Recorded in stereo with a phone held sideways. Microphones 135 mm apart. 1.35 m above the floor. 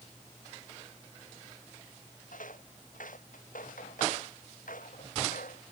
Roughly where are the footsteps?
Left.